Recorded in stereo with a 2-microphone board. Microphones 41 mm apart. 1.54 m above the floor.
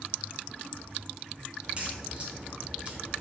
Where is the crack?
35° right (ahead or behind), 1.1 m.